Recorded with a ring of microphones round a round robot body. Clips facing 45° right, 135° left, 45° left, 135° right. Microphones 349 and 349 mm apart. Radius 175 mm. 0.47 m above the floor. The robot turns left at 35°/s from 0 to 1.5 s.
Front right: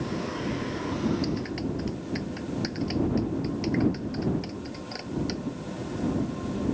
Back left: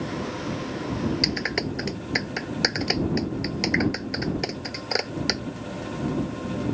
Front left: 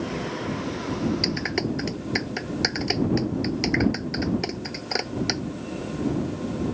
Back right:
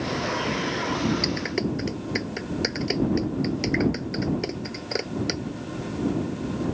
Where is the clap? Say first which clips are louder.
Back left 1 dB, even; 135° left; by 5.4 s 125° left.